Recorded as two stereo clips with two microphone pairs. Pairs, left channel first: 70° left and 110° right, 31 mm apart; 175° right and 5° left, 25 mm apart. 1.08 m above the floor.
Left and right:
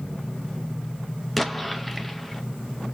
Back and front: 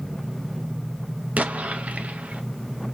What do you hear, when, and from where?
1.4 s an explosion: 15° right, 0.6 m